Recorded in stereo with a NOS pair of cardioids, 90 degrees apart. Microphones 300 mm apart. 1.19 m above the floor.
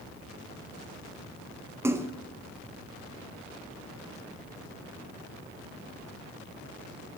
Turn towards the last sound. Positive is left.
turn(degrees=-10)